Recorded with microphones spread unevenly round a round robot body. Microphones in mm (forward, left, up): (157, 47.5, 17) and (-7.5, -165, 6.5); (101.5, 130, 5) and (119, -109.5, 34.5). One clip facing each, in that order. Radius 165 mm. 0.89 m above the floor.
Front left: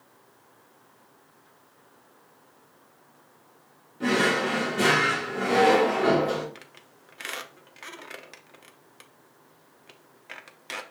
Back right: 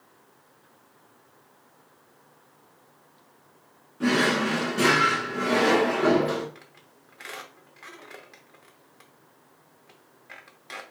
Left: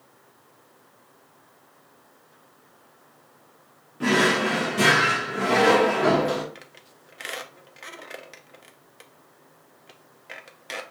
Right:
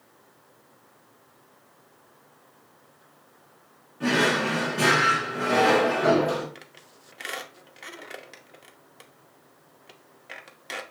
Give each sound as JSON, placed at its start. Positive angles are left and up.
{"t": 4.0, "sound": "a drawer", "azimuth_deg": 155, "distance_m": 0.8}
{"t": 6.5, "sound": "a squeak", "azimuth_deg": 5, "distance_m": 0.8}